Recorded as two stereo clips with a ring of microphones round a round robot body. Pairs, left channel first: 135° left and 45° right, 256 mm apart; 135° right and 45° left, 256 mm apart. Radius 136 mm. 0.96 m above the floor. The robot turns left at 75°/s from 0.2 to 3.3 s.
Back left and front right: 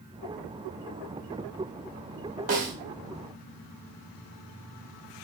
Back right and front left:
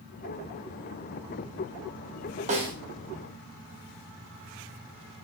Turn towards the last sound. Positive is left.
turn(degrees=-65)